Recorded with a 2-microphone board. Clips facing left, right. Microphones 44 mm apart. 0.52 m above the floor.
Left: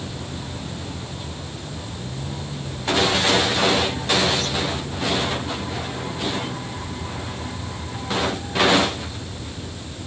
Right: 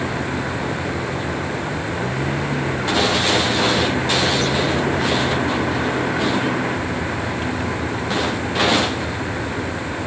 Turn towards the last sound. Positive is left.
turn(degrees=-70)  # may be behind; listen again after turning